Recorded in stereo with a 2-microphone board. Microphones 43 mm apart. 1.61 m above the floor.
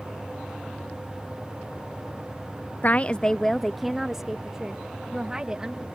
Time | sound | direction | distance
2.8 | a woman speaking | 45° left (ahead or behind) | ?